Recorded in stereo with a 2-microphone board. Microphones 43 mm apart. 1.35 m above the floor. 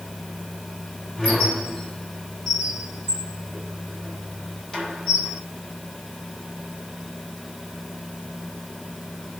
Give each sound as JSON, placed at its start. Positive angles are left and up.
{"t": 1.2, "sound": "a squeak", "side_deg": 5, "distance_m": 6.0}